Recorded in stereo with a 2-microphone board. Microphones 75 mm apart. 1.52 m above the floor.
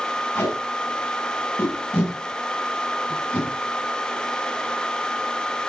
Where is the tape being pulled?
30° left (ahead or behind), 8 m.